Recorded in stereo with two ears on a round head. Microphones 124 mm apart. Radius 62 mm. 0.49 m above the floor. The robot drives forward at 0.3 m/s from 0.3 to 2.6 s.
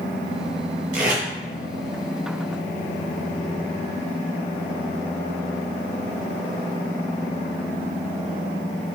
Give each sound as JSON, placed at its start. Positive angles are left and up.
{"t": 0.9, "sound": "tape being pulled", "side_deg": -60, "distance_m": 2.0}